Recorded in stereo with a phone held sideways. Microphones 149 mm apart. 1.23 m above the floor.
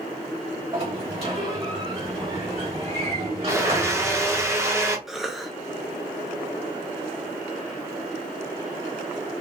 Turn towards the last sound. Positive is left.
turn(degrees=0)  # may be behind; listen again after turning